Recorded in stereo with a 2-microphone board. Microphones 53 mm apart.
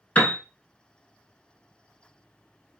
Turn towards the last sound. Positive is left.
turn(degrees=30)  # may be behind; listen again after turning